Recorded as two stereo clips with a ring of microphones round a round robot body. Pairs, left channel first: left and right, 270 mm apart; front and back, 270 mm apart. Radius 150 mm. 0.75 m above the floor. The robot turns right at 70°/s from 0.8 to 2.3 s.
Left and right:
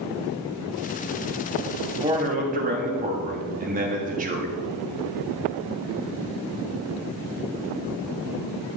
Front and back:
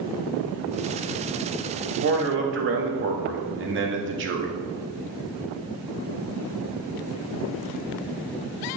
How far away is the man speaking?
About 1.4 m.